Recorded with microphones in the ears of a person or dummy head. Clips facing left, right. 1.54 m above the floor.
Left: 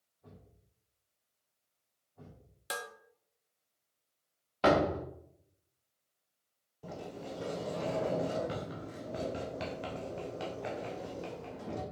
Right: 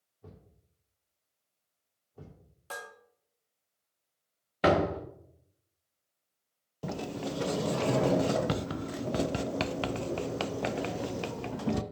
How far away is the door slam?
About 1.4 m.